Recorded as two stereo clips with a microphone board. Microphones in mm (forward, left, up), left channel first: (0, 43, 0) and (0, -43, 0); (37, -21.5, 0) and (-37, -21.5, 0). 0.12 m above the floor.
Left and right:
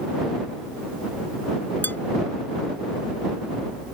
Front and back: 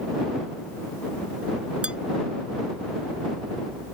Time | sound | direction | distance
1.8 | dishes clattering | 125° left | ?